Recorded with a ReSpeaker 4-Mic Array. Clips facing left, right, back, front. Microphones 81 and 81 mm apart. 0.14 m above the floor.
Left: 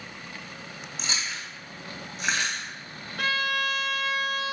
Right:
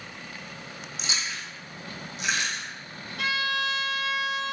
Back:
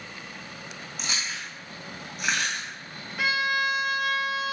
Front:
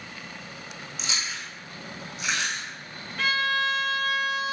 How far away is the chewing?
About 1.8 m.